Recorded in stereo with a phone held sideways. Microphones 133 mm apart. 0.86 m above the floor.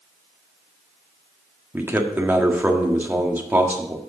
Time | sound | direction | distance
1.7 | a man speaking | 15° right (ahead or behind) | 1.5 m